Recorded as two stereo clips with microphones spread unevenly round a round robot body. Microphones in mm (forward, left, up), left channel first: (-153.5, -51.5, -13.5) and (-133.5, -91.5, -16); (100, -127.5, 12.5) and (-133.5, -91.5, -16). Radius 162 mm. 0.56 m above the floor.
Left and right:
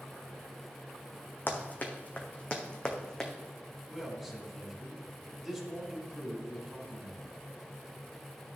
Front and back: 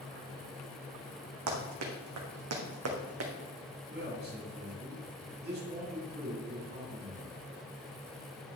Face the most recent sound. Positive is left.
turn(degrees=-160)